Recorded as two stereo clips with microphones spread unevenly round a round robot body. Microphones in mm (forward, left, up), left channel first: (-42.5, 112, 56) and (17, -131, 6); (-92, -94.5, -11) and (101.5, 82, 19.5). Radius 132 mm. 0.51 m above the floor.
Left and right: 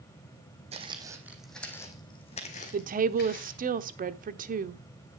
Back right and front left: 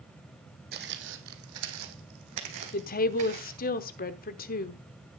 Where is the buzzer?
I don't hear a buzzer.